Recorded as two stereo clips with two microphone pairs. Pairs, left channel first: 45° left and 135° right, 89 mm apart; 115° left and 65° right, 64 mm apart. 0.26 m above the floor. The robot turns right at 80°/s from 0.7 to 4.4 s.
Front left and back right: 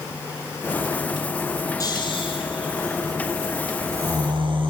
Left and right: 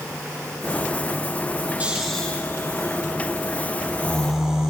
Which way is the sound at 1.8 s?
5° right.